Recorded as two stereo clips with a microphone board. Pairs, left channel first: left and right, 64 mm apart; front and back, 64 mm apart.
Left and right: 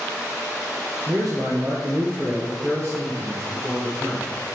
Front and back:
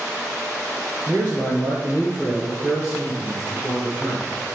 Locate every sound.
1.1 s a man speaking: 80° right, 2.5 m; by 4.3 s 40° right, 4 m